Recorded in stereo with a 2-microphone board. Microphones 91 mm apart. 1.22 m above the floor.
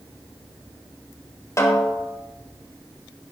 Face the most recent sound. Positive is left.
turn(degrees=30)  # may be behind; listen again after turning